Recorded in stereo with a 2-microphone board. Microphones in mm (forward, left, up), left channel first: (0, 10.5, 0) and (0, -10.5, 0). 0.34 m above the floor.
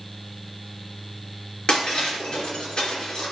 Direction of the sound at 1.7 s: 45° left (ahead or behind).